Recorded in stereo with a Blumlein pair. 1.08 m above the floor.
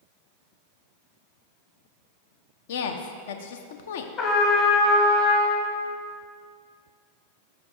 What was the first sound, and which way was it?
A woman speaking, 55° left.